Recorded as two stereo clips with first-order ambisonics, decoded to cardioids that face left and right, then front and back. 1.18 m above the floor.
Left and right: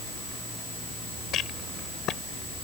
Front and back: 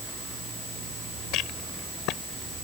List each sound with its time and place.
1.3 s a rattle: 35° left